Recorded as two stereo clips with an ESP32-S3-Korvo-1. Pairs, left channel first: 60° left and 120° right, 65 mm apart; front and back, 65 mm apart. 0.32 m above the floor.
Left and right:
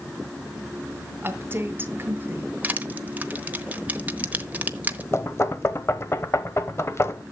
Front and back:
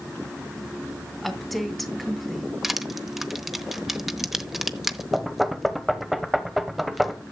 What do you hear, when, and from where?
1.2 s a woman speaking: 90° right, 1.6 m
2.6 s crushing: 100° right, 0.9 m
5.1 s knocking: 90° left, 1.0 m